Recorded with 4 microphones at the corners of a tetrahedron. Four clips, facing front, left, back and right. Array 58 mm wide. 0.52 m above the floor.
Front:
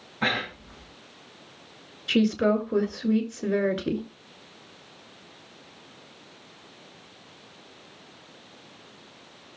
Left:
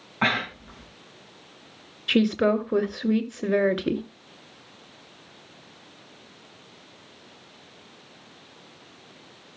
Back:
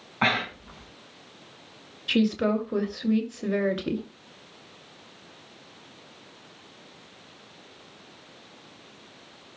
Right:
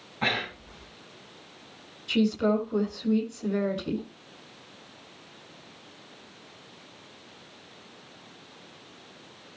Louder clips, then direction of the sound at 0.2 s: Left 4 dB, back 2 dB; 145° left.